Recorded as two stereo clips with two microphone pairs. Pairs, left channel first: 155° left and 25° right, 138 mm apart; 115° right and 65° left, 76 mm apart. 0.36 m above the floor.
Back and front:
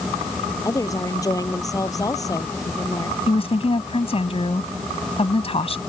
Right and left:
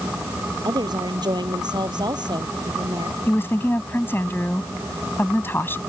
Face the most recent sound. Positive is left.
turn(degrees=-170)